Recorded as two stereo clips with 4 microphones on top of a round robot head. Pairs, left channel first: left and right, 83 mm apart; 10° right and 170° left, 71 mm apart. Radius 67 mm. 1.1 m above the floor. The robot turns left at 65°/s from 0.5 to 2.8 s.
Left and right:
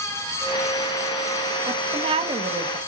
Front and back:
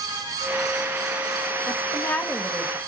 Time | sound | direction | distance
1.7 | a woman speaking | 50° right | 2.0 m